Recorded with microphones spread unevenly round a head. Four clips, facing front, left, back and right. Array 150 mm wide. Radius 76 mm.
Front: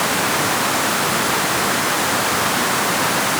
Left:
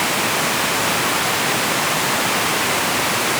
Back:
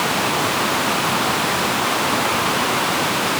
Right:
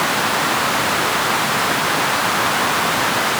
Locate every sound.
Only background noise.